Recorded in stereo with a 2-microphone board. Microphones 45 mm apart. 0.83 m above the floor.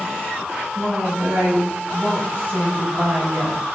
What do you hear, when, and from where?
0.7 s a woman speaking: 55° right (ahead or behind), 5 m